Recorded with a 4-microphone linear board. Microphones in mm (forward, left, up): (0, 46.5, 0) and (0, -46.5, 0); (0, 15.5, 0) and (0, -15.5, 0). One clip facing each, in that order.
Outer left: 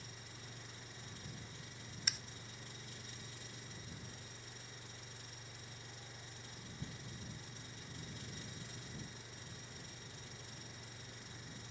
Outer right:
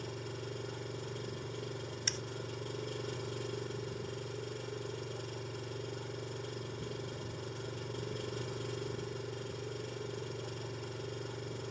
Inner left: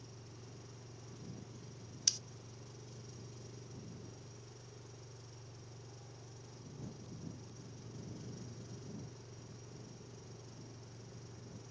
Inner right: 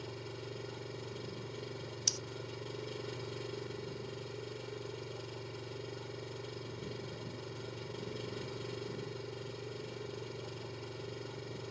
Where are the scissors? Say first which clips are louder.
Outer right 2 dB, even; 5° left (ahead or behind).